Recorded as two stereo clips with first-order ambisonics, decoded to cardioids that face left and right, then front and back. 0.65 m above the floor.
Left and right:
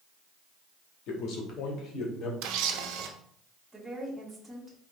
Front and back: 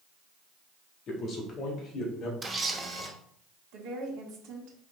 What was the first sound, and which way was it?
A man speaking, 60° left.